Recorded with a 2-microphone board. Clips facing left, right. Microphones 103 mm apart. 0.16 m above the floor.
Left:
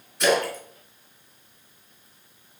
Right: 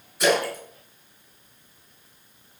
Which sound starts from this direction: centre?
A splash, at 0.2 s.